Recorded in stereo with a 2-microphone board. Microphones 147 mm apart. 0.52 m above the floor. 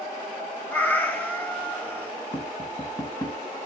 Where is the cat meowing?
15° left (ahead or behind), 1.5 m.